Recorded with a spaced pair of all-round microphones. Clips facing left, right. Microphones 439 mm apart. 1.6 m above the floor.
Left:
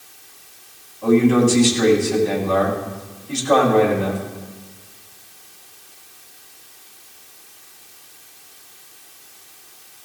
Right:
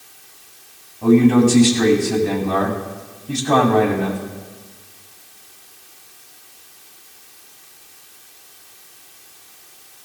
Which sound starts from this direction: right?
A man speaking, at 1.0 s.